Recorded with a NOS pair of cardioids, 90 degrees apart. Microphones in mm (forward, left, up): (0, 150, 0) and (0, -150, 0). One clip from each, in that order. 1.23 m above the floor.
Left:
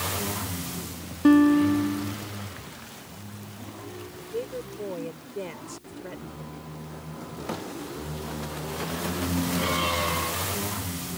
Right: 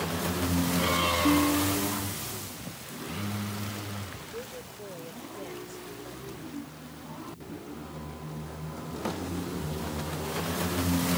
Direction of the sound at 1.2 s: 60° left.